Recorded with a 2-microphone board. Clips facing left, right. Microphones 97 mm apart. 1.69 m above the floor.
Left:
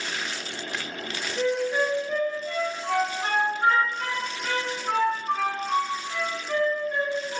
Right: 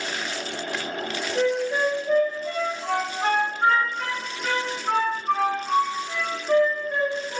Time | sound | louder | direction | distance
1.4 | a flute | right 1 dB | 75° right (ahead or behind) | 1.8 m